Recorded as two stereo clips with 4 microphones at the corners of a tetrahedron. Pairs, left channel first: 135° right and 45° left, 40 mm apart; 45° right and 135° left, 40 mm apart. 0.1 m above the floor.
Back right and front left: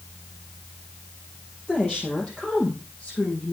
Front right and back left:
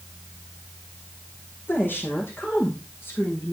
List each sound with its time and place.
1.7 s a woman speaking: 65° right, 3 m; by 3.5 s 75° right, 5.5 m